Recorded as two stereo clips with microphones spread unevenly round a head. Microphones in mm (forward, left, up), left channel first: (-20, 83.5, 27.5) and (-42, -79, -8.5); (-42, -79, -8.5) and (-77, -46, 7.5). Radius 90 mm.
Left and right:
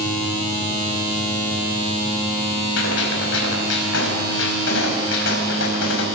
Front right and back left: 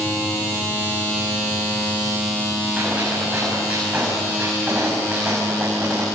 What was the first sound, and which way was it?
A gunshot, 65° left.